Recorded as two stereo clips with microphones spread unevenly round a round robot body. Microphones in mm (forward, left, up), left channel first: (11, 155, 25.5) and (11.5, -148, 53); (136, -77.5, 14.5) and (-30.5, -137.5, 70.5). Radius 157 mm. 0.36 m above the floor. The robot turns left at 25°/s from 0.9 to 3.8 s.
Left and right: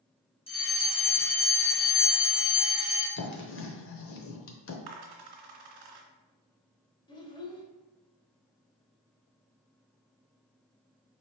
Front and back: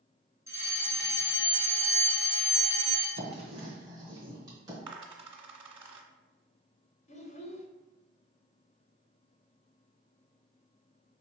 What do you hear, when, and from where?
0.5 s a fire alarm: 100° left, 1.8 m; by 3.1 s 45° left, 1.8 m
3.2 s writing: 135° left, 0.8 m; by 4.8 s 115° left, 0.8 m
4.9 s a dropped coin: 90° right, 1.3 m
7.1 s a child speaking: 20° left, 1.1 m